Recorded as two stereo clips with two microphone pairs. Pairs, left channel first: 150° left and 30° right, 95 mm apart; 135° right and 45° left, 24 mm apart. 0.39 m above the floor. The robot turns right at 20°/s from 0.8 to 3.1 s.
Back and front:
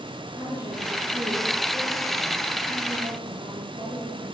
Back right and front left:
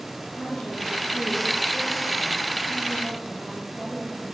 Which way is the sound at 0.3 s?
90° right.